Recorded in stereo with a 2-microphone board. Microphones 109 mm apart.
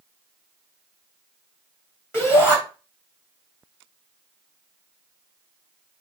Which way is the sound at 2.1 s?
20° left (ahead or behind).